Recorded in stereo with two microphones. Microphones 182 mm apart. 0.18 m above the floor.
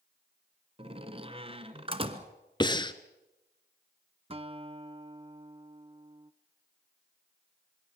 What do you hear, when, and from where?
0.8 s a door slam: 30° right (ahead or behind), 1.3 m
2.6 s breathing: 25° left (ahead or behind), 0.8 m
4.3 s a guitar: 30° right (ahead or behind), 0.6 m